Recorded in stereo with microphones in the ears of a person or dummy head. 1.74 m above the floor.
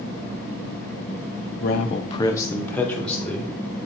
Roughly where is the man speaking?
Left.